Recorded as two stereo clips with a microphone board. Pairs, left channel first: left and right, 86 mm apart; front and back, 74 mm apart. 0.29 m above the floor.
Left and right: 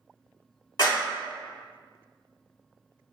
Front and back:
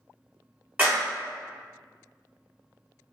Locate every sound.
0.8 s a clap: 115° left, 1.5 m